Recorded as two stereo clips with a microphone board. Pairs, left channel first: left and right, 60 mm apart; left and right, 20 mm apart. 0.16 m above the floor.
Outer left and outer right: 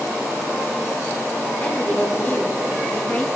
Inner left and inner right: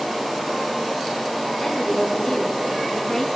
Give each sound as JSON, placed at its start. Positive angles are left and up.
{"t": 1.6, "sound": "a woman speaking", "side_deg": 30, "distance_m": 1.5}